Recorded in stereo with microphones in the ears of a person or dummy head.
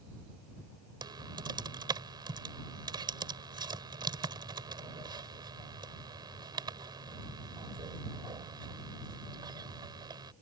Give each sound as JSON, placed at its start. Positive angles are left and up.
{"t": 1.0, "sound": "typing on a keyboard", "side_deg": -25}